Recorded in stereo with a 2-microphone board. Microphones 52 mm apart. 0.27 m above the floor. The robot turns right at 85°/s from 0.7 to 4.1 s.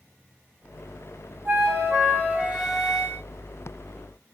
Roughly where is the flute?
Behind right.